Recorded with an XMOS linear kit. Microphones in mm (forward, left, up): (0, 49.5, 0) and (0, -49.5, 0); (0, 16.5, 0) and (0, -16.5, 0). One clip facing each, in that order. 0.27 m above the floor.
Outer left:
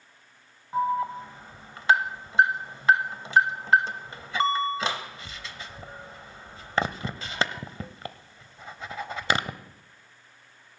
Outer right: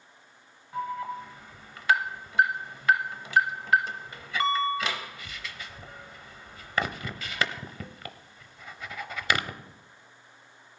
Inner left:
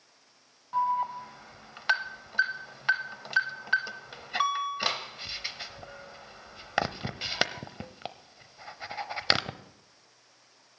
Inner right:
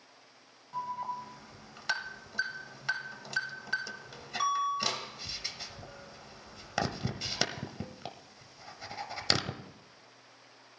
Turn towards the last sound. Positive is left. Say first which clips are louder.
# outer left 7 dB, inner left 9 dB
turn(degrees=30)  # may be behind; listen again after turning